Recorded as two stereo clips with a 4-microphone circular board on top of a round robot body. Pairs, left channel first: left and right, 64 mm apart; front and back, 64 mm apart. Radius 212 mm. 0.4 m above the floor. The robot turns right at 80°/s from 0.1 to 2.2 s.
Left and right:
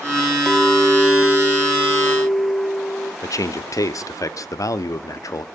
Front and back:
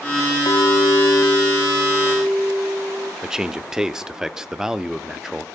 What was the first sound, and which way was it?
A clink, 10° right.